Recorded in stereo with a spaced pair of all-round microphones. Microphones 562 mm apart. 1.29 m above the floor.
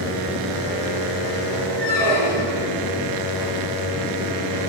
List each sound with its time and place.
1.8 s a squeak: 20° right (ahead or behind), 1.4 m